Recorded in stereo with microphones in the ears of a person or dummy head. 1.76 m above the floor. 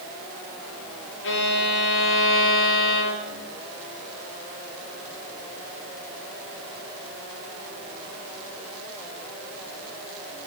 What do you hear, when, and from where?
1.2 s a violin: 65° left (ahead or behind), 1.1 m